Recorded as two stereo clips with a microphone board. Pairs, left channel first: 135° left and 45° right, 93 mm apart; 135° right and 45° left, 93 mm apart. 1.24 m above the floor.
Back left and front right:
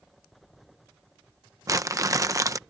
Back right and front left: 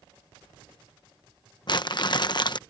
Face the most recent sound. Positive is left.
turn(degrees=-100)